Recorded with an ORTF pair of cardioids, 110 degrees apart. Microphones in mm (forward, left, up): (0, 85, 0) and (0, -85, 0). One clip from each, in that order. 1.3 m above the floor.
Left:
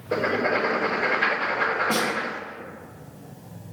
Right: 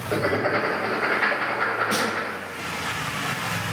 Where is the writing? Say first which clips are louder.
Even; 10° left, 1.5 m.